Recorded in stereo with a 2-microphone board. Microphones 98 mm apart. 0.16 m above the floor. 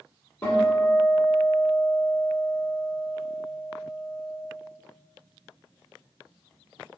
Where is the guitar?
25° left (ahead or behind), 1.1 m.